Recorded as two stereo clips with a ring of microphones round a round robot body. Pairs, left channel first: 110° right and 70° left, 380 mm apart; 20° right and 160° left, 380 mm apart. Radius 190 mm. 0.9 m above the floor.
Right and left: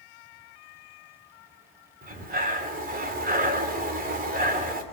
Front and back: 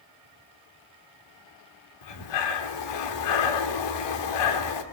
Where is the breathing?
Straight ahead, 3 m.